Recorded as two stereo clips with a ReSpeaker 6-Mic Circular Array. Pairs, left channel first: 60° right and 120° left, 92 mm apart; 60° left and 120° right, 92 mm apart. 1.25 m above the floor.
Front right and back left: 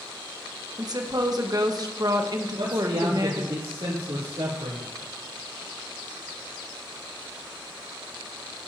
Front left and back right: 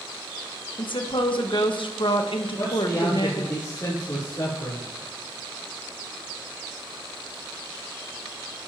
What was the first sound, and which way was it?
A woman speaking, 80° left.